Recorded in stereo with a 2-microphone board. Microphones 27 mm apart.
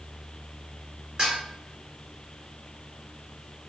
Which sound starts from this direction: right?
Dishes clattering, at 1.2 s.